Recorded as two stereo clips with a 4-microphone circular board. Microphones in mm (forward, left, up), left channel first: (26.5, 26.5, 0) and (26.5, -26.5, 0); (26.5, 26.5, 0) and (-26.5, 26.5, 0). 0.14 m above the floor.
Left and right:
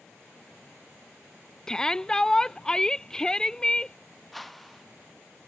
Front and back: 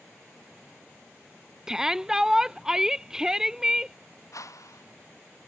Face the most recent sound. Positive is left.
turn(degrees=5)